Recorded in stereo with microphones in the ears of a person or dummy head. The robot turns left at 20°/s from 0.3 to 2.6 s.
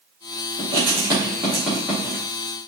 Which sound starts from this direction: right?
Writing, at 0.6 s.